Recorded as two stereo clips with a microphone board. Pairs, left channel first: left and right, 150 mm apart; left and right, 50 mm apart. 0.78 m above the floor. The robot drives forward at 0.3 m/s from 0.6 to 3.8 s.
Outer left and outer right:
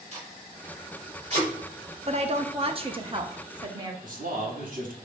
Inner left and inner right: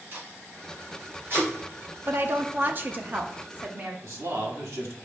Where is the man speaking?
60° right (ahead or behind), 1.3 m.